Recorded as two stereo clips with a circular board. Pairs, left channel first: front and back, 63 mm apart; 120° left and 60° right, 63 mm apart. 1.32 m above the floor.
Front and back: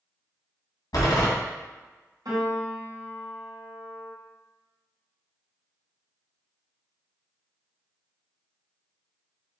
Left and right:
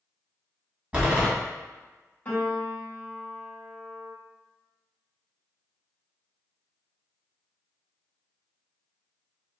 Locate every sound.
0.9 s a door slam: 5° left, 1.5 m
2.2 s a piano: straight behind, 1.9 m